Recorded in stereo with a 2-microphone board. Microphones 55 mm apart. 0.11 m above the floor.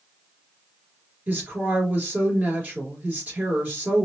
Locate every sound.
1.3 s a woman speaking: 30° right (ahead or behind), 2.5 m